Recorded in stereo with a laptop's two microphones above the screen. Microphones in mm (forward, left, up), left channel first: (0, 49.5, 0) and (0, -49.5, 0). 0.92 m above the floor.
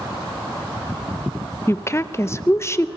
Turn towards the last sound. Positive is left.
turn(degrees=30)  # may be behind; listen again after turning